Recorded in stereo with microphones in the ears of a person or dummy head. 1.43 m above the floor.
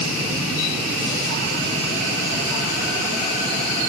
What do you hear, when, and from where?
Only background noise.